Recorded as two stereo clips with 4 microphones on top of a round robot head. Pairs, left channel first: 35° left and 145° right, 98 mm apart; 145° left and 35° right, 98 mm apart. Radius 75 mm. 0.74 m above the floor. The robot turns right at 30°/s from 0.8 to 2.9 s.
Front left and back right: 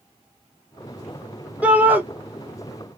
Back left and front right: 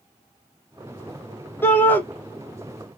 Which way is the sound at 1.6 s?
160° left.